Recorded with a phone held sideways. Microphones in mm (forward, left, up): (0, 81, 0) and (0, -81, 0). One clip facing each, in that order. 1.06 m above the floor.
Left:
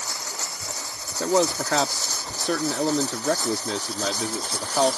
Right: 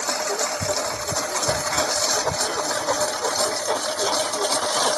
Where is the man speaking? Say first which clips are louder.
Left 7 dB; 80° left.